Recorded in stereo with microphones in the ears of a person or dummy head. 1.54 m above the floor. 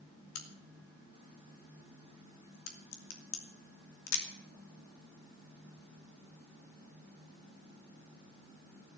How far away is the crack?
About 2.5 m.